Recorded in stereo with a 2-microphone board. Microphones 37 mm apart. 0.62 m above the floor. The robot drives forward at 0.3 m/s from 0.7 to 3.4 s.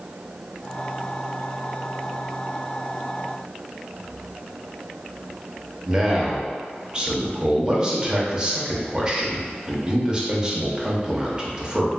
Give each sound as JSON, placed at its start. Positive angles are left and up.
{"t": 5.9, "sound": "a man speaking", "side_deg": -20, "distance_m": 0.5}